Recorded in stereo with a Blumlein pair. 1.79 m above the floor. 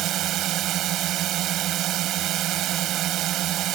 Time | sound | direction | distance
0.0 | a drone | 35° right | ?